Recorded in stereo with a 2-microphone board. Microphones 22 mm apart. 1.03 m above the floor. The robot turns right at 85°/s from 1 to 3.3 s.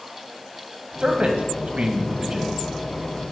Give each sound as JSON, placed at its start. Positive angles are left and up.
{"t": 1.0, "sound": "a man speaking", "side_deg": -35, "distance_m": 1.3}